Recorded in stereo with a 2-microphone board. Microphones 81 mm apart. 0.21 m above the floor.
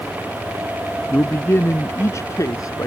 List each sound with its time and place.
1.1 s a man speaking: 25° left (ahead or behind); by 2.9 s 50° left (ahead or behind)